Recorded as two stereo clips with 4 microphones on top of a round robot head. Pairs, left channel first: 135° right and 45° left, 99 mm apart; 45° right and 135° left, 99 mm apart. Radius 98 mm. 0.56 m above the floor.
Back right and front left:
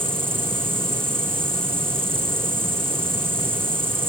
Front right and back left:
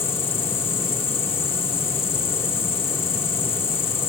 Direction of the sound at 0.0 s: 25° right.